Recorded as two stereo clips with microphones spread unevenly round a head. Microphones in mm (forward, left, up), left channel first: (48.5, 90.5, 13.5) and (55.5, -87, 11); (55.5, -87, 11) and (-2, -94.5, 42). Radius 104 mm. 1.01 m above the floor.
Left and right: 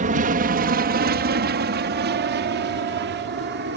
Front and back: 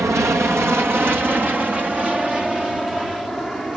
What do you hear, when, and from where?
0.0 s an aircraft: 120° right; by 3.8 s 75° right